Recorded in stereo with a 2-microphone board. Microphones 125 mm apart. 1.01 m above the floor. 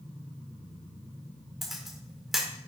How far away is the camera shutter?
About 3 m.